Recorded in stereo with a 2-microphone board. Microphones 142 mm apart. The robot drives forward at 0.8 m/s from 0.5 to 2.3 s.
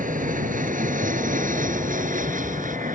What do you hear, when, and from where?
0.0 s an aircraft: 70° right (ahead or behind)